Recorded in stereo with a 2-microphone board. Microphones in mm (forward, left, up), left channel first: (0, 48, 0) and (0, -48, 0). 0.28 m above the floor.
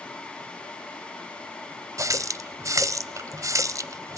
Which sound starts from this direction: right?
A running tap, at 2.0 s.